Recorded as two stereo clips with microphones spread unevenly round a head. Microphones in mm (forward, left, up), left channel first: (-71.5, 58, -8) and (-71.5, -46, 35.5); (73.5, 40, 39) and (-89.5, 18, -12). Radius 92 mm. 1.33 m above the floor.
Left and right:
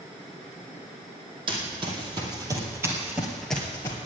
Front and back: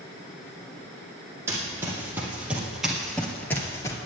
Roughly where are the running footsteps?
Right.